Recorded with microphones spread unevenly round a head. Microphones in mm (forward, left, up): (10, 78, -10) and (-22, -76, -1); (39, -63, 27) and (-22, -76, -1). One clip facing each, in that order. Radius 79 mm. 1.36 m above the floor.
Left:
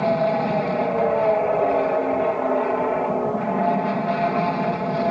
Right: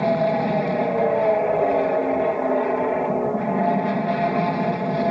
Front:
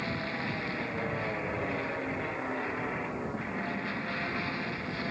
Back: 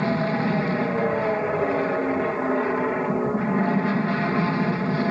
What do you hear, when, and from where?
0.0 s an aircraft: 175° left